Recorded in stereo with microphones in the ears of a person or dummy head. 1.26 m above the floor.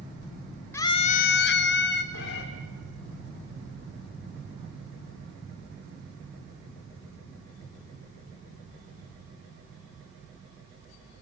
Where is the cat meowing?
65° left (ahead or behind), 1.9 m.